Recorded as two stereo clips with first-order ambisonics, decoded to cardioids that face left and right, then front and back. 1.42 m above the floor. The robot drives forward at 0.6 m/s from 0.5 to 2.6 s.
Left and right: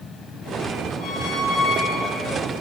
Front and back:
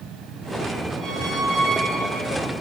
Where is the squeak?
110° left, 0.6 m; by 2.4 s 155° left, 1.2 m.